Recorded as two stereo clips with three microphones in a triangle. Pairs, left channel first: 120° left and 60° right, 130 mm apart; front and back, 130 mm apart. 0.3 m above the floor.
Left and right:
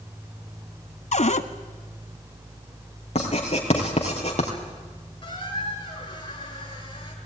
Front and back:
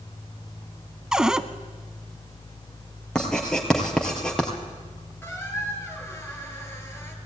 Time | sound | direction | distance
1.1 | a cupboard door | 95° left | 0.8 m
3.1 | writing | 85° left | 3 m
5.2 | a squeak | 70° left | 2.5 m